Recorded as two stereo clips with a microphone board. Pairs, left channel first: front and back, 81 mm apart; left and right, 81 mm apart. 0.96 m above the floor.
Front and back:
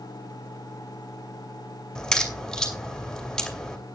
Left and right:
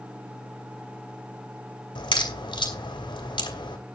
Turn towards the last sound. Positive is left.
turn(degrees=85)